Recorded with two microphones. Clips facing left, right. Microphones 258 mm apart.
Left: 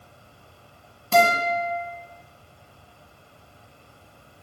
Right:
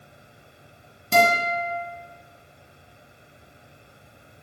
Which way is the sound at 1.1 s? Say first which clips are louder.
Left 1 dB; 20° right (ahead or behind).